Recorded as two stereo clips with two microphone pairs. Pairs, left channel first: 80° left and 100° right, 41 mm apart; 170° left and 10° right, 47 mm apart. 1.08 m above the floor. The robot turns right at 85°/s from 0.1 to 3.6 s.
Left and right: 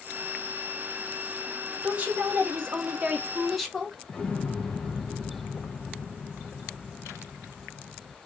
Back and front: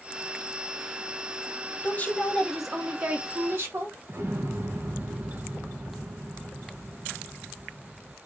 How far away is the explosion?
About 0.8 m.